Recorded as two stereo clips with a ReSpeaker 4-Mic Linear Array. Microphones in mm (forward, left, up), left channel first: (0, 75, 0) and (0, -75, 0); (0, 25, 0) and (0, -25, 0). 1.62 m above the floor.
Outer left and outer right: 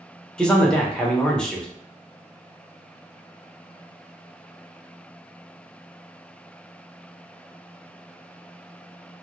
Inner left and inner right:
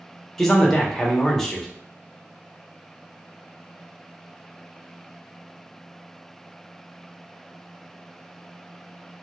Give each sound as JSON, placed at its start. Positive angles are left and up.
{"t": 0.4, "sound": "a man speaking", "side_deg": 5, "distance_m": 0.6}